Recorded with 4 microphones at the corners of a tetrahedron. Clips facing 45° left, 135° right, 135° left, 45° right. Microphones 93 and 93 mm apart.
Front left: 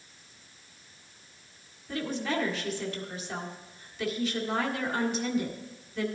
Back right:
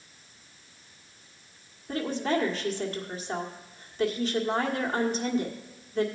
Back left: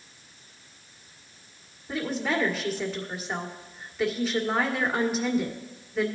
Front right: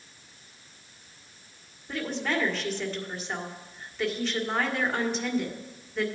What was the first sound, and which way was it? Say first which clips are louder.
A woman speaking: back right 4 dB, back left 2 dB; 145° right.